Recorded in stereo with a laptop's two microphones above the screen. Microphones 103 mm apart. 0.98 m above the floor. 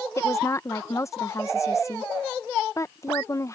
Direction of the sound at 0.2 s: 30° left (ahead or behind).